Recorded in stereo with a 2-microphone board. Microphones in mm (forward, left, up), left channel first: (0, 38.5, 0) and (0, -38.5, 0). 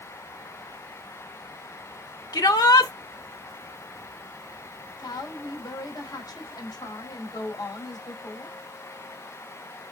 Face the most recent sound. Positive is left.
turn(degrees=60)  # may be behind; listen again after turning